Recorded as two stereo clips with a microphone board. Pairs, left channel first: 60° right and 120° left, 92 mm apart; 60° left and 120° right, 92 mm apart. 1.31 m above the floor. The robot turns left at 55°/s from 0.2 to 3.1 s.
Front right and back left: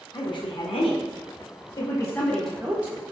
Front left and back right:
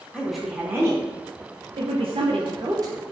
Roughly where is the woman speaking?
Ahead.